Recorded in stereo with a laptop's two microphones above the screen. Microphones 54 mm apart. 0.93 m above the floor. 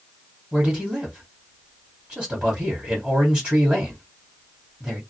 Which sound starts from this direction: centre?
A man speaking, at 0.5 s.